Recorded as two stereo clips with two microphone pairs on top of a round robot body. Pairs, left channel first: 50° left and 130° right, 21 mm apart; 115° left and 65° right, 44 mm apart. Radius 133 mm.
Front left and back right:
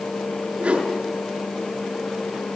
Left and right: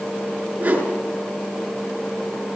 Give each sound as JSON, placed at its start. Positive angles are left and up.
{"t": 0.6, "sound": "a whoosh", "azimuth_deg": -130, "distance_m": 7.0}